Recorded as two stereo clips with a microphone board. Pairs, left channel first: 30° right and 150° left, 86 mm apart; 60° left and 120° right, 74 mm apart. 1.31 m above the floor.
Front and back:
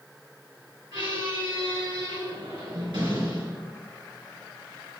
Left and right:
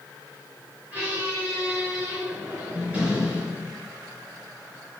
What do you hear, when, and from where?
0.9 s a squeak: 170° left, 4.5 m